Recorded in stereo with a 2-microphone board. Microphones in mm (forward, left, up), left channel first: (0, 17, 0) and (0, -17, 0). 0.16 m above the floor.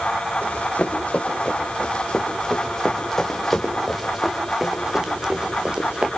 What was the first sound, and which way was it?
Running footsteps, 40° left (ahead or behind).